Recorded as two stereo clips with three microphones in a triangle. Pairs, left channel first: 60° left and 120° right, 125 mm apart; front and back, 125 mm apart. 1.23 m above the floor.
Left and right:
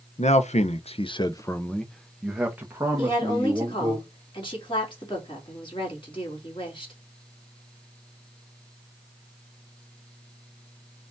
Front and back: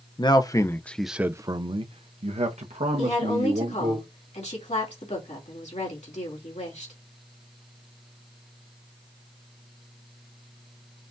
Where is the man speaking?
50° left, 0.8 m; by 4.0 s straight behind, 1.7 m.